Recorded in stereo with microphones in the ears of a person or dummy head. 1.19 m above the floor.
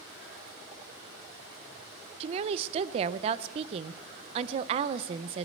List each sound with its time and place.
2.2 s a woman speaking: 35° right (ahead or behind), 0.5 m